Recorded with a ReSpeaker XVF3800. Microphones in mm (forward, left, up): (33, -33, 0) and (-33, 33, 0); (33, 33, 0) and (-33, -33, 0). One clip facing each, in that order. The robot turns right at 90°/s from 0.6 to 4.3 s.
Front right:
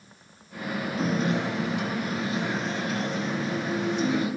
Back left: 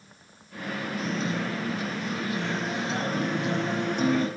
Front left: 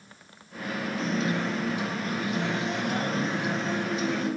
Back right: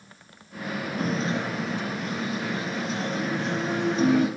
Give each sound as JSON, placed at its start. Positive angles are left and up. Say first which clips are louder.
{"t": 1.0, "sound": "a guitar", "louder": "front right 5 dB, back right 1 dB", "azimuth_deg": -105, "distance_m": 5.0}